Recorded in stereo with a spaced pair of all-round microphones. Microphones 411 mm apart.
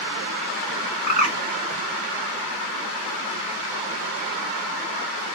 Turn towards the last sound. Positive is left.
turn(degrees=-45)  # may be behind; listen again after turning